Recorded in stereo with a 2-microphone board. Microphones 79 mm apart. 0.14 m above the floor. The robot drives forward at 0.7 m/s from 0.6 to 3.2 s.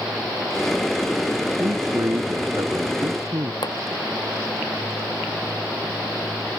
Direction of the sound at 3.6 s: 70° left (ahead or behind).